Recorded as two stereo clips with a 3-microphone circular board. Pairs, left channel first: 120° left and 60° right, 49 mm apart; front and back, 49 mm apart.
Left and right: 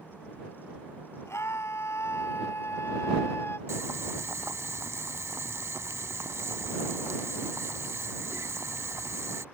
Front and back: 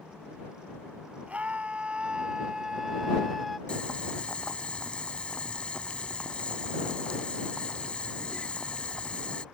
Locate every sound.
1.3 s a scream: 120° left; by 3.6 s 90° left
3.7 s boiling: 65° right